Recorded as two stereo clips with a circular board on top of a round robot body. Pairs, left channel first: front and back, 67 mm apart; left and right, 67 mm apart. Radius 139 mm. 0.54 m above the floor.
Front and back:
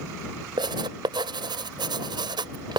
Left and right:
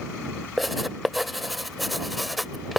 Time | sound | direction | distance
0.6 | writing | straight behind | ?